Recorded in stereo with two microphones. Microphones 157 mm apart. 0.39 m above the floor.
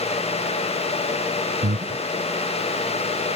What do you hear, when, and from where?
1.6 s breathing: 65° right (ahead or behind)